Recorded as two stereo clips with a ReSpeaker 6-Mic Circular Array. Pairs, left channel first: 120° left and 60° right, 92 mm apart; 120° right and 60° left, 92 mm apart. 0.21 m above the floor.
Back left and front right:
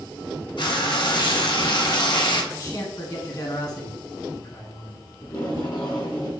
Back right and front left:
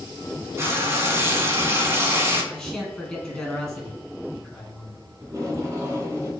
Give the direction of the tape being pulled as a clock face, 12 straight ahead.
8 o'clock.